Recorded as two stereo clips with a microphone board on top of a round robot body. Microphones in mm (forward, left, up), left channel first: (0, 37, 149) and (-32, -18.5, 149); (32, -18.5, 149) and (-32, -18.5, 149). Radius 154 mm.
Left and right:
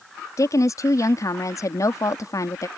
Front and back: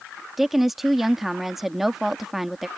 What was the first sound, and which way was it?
A woman speaking, 95° left.